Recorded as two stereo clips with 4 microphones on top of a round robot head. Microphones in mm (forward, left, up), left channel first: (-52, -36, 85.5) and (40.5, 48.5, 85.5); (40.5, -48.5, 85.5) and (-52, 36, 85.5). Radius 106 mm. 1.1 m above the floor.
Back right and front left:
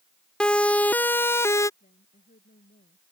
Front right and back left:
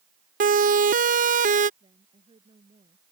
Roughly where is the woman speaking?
Behind.